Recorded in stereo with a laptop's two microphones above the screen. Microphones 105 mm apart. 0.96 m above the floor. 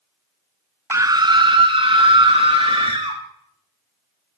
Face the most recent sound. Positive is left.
turn(degrees=-50)  # may be behind; listen again after turning